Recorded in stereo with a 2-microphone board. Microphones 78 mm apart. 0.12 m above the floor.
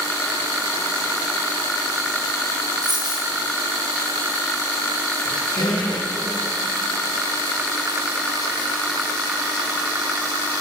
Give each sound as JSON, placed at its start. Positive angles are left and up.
{"t": 2.8, "sound": "a dropped coin", "side_deg": -60, "distance_m": 5.0}
{"t": 5.2, "sound": "a squeak", "side_deg": 75, "distance_m": 4.0}